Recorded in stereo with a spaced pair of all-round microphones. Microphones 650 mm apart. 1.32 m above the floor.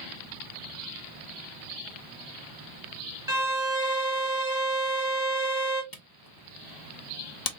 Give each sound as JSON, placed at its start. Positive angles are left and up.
{"t": 3.3, "sound": "a violin", "side_deg": -5, "distance_m": 1.1}
{"t": 5.9, "sound": "a camera shutter", "side_deg": 35, "distance_m": 0.6}